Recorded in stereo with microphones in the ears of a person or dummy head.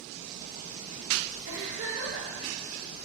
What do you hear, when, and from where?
1.5 s a giggle: 55° right (ahead or behind), 1.8 m